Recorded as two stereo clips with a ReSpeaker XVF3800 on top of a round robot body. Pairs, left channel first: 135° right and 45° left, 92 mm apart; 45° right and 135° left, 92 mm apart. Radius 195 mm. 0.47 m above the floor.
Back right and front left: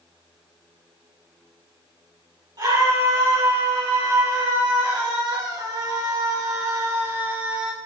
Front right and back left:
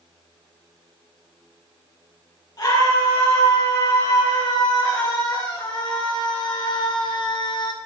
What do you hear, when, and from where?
2.6 s a scream: 5° left, 8.5 m; by 7.8 s 35° right, 1.8 m